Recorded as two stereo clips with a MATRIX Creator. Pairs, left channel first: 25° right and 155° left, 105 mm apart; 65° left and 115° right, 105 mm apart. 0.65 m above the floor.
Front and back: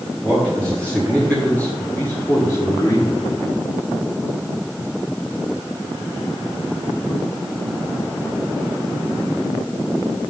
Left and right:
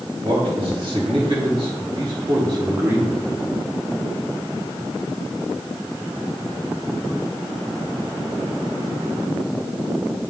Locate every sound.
0.2 s a man speaking: 105° right, 2.5 m; by 3.3 s 50° right, 1.3 m